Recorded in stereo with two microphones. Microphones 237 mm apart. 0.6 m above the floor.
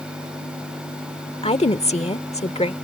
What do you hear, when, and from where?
1.4 s a woman speaking: 25° left (ahead or behind)